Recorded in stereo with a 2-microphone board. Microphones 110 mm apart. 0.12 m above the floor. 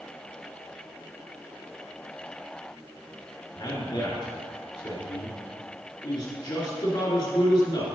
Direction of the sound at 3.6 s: 45° left (ahead or behind).